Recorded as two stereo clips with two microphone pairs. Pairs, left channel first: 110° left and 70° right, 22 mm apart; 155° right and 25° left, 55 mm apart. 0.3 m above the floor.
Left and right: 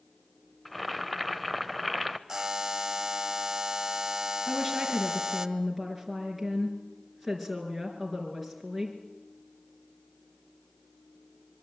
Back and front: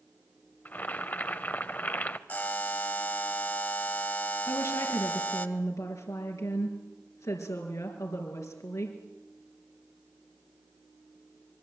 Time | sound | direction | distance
0.7 | boiling | 160° right | 0.9 m
2.3 | a buzzer | 120° right | 1.3 m
4.5 | a woman speaking | 165° right | 4.5 m